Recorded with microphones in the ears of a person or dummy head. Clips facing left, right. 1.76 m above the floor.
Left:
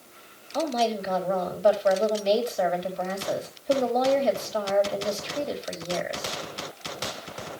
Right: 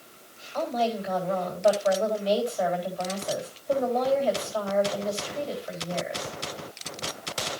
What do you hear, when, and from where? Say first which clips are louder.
0.5 s a woman speaking: left 2 dB; 30° left (ahead or behind), 4 m